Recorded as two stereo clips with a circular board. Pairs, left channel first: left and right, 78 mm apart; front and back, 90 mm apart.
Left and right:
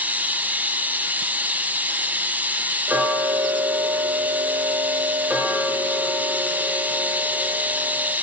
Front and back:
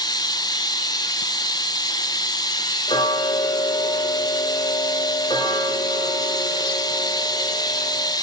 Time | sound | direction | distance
0.0 | running water | 25° right | 0.7 m
2.9 | ticking | 20° right | 3 m